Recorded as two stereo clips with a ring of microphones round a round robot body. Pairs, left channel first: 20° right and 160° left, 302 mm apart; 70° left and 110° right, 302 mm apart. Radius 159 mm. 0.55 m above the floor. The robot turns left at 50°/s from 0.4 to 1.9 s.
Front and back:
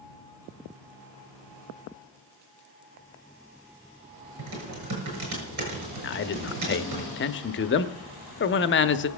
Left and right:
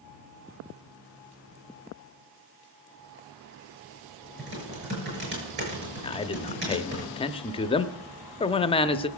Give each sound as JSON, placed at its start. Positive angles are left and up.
{"t": 4.4, "sound": "typing on a keyboard", "azimuth_deg": -170, "distance_m": 6.5}
{"t": 6.0, "sound": "a man speaking", "azimuth_deg": 5, "distance_m": 0.8}